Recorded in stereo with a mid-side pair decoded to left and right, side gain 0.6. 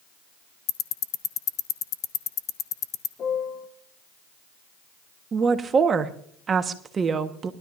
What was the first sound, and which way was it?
Ticking, 55° left.